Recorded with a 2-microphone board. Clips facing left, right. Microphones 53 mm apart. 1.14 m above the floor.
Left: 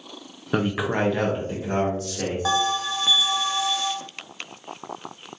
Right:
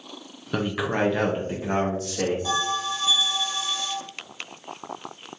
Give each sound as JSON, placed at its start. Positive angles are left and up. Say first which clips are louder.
{"t": 0.5, "sound": "a man speaking", "louder": "left 2 dB", "side_deg": 25, "distance_m": 0.5}
{"t": 2.5, "sound": "a bell", "louder": "left 3 dB", "side_deg": 75, "distance_m": 0.5}